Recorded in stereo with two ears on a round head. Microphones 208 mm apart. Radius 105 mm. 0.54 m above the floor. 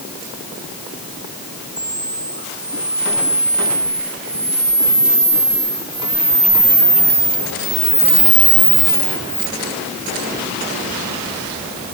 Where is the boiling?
I don't hear boiling.